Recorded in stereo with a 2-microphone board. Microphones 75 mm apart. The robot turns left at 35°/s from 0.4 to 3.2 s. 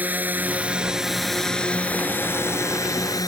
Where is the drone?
20° right (ahead or behind); by 3.3 s 50° left (ahead or behind).